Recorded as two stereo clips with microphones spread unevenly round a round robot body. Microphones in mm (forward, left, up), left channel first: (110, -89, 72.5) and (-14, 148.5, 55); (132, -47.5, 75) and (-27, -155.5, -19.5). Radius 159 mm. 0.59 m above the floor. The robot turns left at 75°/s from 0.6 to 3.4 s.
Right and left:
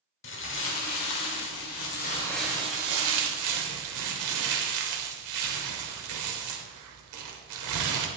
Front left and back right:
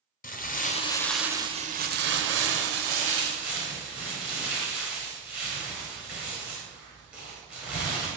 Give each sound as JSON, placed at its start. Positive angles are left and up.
{"t": 0.2, "sound": "crumpling", "azimuth_deg": -15, "distance_m": 1.2}